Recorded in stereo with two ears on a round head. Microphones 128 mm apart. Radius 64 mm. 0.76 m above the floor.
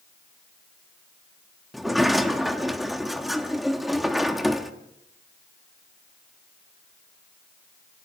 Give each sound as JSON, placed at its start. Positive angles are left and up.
{"t": 1.7, "sound": "a sliding door", "side_deg": 0, "distance_m": 1.3}